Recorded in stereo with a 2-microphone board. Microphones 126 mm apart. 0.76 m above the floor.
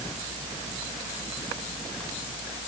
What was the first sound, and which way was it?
Only background noise.